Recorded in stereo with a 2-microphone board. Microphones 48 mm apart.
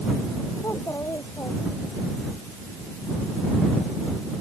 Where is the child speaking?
85° left.